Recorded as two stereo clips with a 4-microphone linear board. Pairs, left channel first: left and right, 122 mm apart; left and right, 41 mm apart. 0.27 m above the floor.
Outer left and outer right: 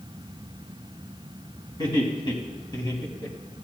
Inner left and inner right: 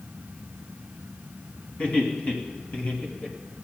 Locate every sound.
1.8 s laughter: 35° left (ahead or behind), 2.5 m; by 3.4 s 30° left (ahead or behind), 1.6 m